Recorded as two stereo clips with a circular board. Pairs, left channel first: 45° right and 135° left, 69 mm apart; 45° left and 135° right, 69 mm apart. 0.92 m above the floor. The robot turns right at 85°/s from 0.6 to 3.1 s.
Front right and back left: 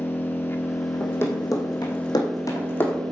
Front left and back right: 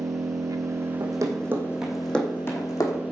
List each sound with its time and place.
0.0 s an engine running: 105° right, 1.0 m; by 3.1 s 110° left, 1.0 m
1.0 s running footsteps: 115° right, 3 m; by 3.0 s 30° left, 3 m